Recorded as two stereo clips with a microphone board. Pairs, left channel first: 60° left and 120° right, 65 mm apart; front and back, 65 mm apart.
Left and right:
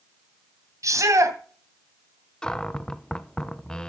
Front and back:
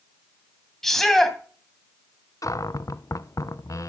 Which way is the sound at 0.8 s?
85° right.